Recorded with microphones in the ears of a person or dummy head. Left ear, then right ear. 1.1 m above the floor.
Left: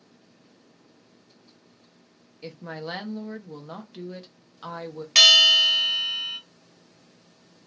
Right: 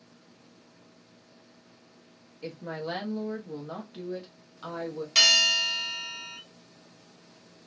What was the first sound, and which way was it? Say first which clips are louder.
A woman speaking: even; 25° left (ahead or behind).